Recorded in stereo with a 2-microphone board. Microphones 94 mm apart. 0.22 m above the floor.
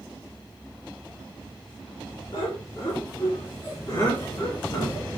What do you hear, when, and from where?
2.3 s laughter: 55° left (ahead or behind), 2.5 m; by 5.1 s 40° left (ahead or behind), 1.7 m